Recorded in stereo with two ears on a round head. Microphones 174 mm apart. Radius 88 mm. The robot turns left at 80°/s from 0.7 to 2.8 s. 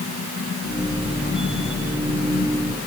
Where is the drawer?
No drawer in this recording.